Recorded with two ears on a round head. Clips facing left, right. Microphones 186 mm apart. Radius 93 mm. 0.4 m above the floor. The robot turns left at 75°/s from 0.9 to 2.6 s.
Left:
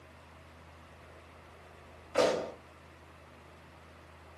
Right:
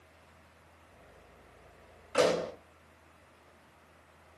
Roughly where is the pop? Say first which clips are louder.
Right 1 dB; centre.